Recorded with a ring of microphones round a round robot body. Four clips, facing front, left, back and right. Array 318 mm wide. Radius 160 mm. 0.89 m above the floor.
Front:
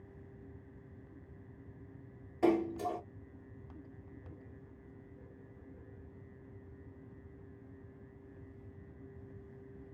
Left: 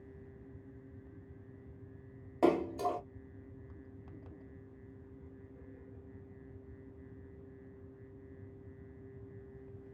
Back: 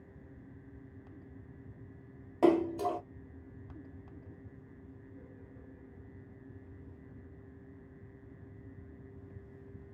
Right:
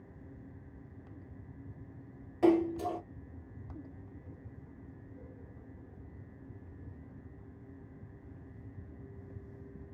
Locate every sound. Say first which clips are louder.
2.4 s a splash: right 3 dB, back 4 dB; 140° left, 1.5 m